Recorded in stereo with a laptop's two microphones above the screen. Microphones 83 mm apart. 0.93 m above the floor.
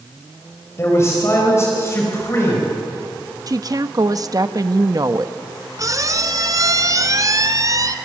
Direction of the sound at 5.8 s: 40° right (ahead or behind).